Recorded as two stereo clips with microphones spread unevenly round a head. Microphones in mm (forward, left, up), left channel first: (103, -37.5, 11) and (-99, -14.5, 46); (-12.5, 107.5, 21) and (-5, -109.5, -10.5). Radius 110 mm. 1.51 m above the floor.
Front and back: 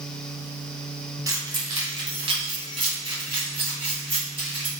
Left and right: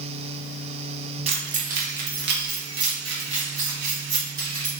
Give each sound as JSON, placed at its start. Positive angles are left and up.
{"t": 1.3, "sound": "keys jangling", "azimuth_deg": -145, "distance_m": 0.7}